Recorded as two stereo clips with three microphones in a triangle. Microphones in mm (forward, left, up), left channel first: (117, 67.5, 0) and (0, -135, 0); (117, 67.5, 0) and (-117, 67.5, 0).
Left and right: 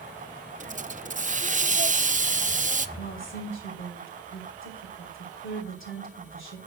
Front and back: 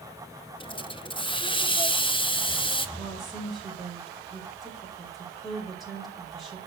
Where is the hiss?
65° right, 0.7 m.